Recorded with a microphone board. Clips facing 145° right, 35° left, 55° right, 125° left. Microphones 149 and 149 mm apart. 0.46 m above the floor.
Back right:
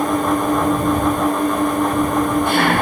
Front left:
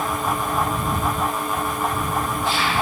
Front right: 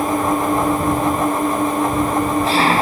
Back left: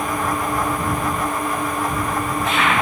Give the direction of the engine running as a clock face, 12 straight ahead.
4 o'clock.